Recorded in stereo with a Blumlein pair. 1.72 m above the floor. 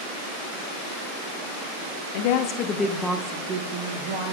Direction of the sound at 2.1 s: 55° left.